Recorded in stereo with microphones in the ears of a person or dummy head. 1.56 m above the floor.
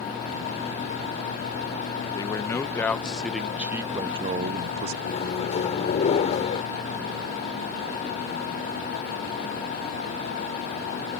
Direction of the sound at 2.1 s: 20° left (ahead or behind).